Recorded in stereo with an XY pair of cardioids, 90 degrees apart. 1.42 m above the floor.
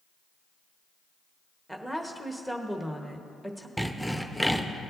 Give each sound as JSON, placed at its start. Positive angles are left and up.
{"t": 1.7, "sound": "a woman speaking", "azimuth_deg": -10, "distance_m": 1.2}
{"t": 3.8, "sound": "sawing", "azimuth_deg": -5, "distance_m": 0.8}